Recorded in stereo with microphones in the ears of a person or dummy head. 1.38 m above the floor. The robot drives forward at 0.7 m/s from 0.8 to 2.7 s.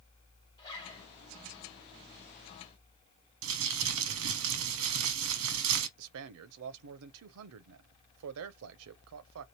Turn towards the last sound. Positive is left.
turn(degrees=-70)  # may be behind; listen again after turning